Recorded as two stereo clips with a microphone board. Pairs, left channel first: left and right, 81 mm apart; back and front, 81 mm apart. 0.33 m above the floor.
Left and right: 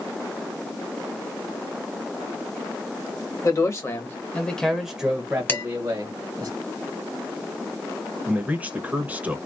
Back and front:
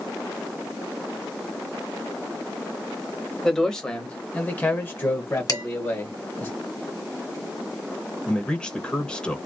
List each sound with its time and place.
3.4 s a man speaking: 95° left, 1.3 m; by 6.5 s 125° right, 1.7 m
5.5 s dishes clattering: 150° left, 1.5 m
8.3 s a man speaking: 120° right, 1.0 m